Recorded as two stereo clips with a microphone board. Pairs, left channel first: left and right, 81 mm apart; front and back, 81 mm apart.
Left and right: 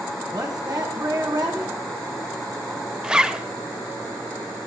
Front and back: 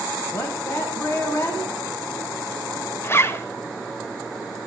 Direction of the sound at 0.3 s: 55° right.